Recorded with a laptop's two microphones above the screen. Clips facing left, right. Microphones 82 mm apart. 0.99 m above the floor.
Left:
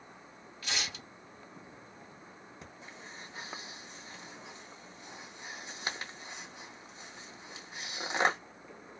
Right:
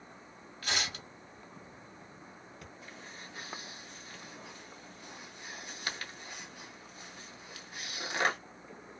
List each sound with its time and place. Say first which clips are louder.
0.6 s tearing paper: right 3 dB; 50° right (ahead or behind), 1.0 m
2.6 s breathing: even; 25° left (ahead or behind), 0.8 m